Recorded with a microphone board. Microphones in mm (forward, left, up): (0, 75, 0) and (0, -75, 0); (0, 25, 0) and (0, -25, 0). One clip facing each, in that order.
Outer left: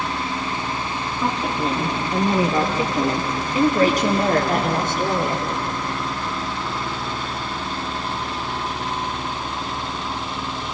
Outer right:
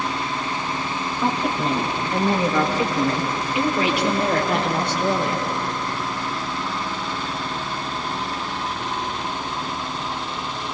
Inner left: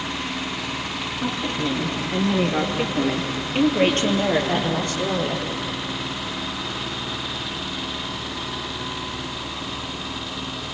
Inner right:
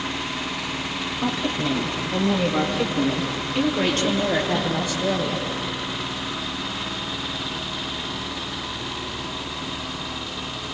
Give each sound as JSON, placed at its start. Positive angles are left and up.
{"t": 1.2, "sound": "a woman speaking", "side_deg": -5, "distance_m": 4.0}